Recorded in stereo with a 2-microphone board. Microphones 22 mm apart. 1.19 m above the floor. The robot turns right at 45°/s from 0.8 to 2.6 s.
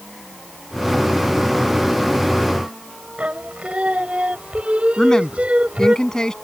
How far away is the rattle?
I don't hear a rattle.